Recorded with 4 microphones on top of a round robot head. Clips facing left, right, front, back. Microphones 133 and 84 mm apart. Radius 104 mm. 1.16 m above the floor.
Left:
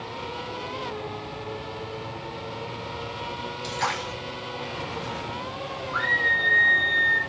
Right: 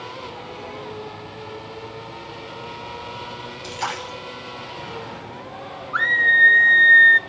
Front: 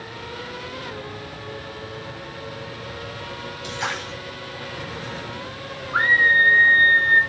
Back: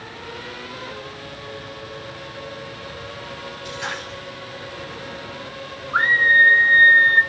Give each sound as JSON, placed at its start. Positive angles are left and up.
{"t": 3.6, "sound": "a splash", "azimuth_deg": -15, "distance_m": 4.5}
{"t": 5.9, "sound": "a scream", "azimuth_deg": -110, "distance_m": 1.5}